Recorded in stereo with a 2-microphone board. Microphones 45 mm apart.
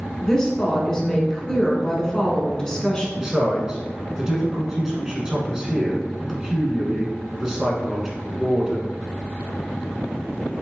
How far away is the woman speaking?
About 1.0 m.